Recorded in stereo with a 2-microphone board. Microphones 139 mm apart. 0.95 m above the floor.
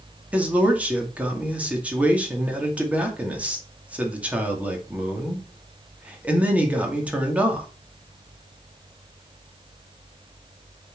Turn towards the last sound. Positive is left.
turn(degrees=-10)  # may be behind; listen again after turning